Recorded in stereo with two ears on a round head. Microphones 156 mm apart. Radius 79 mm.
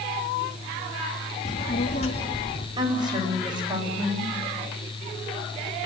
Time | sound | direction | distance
1.4 | a child speaking | 45° left (ahead or behind) | 1.9 m
2.8 | a woman speaking | 25° right (ahead or behind) | 9 m